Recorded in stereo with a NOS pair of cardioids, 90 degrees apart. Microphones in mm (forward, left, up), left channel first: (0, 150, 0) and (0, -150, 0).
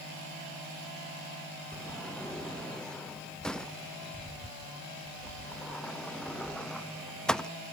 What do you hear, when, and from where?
1.7 s a sliding door: straight ahead, 0.8 m